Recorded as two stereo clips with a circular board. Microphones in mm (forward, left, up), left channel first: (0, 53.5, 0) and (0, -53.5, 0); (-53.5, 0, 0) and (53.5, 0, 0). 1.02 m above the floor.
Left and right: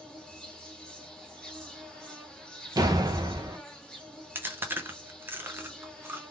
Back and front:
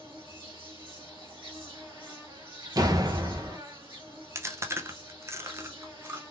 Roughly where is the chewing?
Ahead right.